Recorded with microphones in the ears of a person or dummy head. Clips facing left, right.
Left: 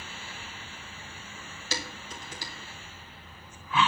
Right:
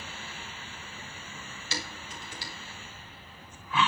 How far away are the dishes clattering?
About 4.5 m.